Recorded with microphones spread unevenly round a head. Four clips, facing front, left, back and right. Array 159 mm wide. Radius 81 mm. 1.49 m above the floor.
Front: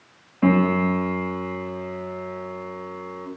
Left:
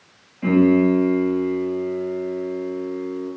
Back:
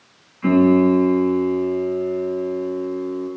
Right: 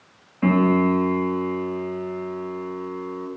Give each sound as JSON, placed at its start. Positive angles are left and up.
{"t": 0.4, "sound": "a piano", "azimuth_deg": -20, "distance_m": 9.0}